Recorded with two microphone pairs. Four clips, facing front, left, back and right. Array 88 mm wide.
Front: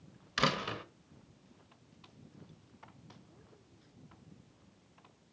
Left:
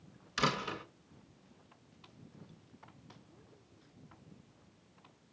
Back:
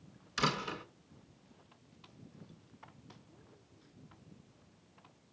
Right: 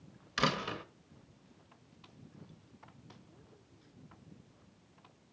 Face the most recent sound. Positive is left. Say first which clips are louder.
# right 1 dB, front 2 dB
turn(degrees=-20)